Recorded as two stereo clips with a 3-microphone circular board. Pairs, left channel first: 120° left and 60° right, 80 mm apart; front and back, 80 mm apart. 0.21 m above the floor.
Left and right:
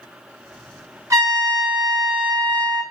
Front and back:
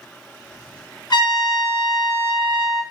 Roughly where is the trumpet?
Ahead.